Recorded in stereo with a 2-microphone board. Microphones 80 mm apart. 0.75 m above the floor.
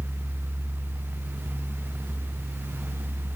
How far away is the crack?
No crack in this recording.